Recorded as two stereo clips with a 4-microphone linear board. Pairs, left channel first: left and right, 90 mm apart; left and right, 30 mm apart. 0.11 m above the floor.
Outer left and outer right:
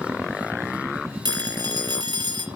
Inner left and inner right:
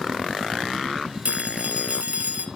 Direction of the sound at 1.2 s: 50° right (ahead or behind).